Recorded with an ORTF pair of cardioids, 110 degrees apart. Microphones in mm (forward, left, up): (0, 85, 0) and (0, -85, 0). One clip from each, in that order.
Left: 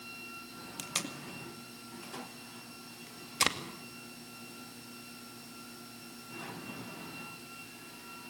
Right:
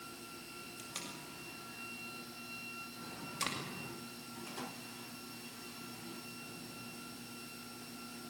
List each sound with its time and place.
0.8 s tape being pulled: 55° left, 2 m